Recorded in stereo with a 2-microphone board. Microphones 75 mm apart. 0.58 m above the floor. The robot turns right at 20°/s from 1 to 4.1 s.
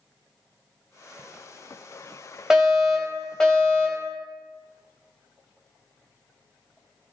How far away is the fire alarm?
About 4.5 m.